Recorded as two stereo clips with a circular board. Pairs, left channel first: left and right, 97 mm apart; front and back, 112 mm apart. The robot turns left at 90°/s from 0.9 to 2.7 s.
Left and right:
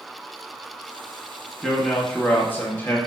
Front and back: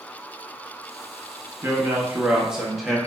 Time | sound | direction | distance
1.6 | a man speaking | 170° right | 0.6 m